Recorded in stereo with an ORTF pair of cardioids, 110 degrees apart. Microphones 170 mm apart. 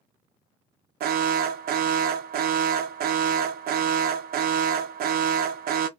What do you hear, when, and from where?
1.0 s an alarm: 65° right, 0.8 m